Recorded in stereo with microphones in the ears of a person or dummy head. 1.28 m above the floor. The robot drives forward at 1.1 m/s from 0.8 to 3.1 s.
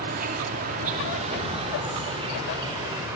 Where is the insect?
45° right (ahead or behind), 2.5 m; by 3.2 s 20° right (ahead or behind), 4.5 m.